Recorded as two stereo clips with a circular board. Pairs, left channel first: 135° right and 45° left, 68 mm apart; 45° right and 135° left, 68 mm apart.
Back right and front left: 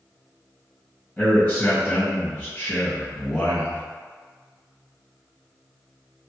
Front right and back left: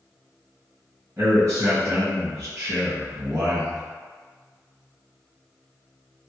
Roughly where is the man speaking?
Behind left.